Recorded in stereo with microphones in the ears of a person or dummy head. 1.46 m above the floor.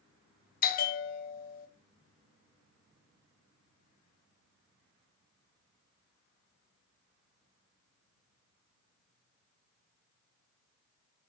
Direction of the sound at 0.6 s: 45° left (ahead or behind).